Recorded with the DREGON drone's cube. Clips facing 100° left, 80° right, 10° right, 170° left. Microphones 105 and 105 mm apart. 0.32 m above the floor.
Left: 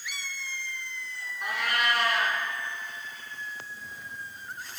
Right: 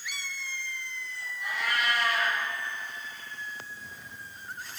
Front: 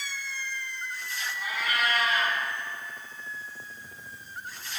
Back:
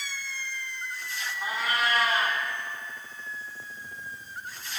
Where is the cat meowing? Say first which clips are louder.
Left 2 dB, back 1 dB; 115° left, 1.9 m.